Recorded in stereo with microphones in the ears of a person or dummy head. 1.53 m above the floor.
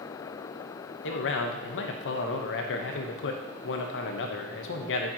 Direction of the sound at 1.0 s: 70° left (ahead or behind).